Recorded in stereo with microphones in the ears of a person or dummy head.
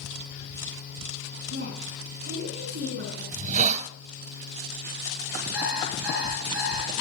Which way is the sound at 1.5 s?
55° right (ahead or behind).